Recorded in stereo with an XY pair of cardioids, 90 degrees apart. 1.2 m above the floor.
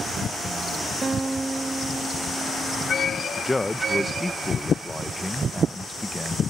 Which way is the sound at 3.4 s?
15° left.